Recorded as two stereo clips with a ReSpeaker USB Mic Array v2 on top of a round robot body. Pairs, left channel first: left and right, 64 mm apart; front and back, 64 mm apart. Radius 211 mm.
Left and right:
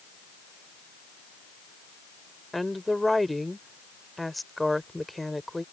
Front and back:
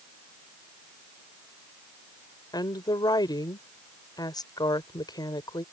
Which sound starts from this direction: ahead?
A woman speaking, at 2.5 s.